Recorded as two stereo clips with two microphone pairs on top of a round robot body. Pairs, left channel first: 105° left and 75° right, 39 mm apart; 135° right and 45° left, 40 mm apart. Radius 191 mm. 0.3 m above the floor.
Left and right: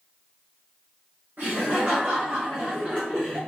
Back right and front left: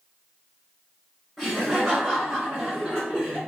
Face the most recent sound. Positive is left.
turn(degrees=0)